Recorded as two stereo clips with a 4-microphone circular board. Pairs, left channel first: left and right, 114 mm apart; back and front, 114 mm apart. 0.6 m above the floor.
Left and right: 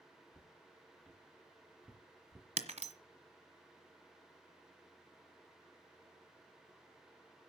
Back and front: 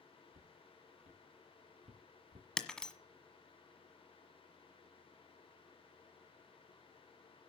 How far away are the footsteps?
About 3.5 m.